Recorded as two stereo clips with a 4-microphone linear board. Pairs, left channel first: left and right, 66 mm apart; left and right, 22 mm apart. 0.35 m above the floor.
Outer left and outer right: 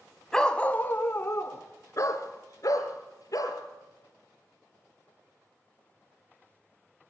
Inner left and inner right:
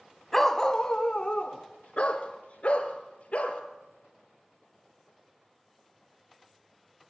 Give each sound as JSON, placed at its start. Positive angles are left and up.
{"t": 0.3, "sound": "a dog barking", "side_deg": 10, "distance_m": 0.7}